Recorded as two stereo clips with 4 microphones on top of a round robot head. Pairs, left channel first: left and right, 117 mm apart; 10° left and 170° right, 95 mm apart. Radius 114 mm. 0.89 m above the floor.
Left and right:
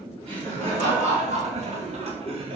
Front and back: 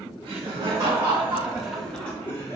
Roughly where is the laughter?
Behind right.